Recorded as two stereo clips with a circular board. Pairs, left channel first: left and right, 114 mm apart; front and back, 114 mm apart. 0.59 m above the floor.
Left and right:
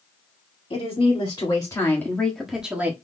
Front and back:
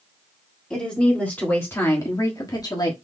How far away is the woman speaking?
About 1.9 m.